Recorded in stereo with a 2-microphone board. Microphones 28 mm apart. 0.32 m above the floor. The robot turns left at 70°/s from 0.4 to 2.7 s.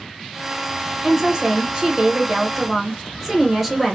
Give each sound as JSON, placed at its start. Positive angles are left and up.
{"t": 1.0, "sound": "a woman speaking", "side_deg": -20, "distance_m": 1.0}